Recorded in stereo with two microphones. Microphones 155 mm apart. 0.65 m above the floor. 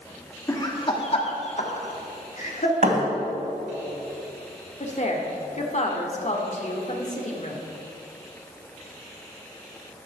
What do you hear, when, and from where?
0.5 s laughter: 20° left (ahead or behind), 1.6 m; by 2.7 s 55° left (ahead or behind), 2.5 m
2.8 s a thud: 65° right (ahead or behind), 2.5 m
4.8 s a woman speaking: 50° left (ahead or behind), 1.4 m